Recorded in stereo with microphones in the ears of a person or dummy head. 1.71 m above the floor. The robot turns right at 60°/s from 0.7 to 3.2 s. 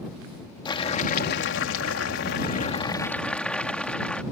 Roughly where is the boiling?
Ahead left.